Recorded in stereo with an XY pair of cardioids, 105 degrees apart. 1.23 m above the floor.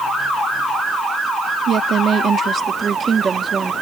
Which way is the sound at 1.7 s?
60° right.